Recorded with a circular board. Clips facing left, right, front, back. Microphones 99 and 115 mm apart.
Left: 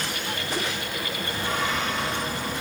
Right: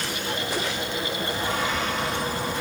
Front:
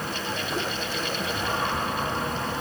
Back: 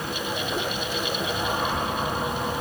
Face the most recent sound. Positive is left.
No sound to turn to.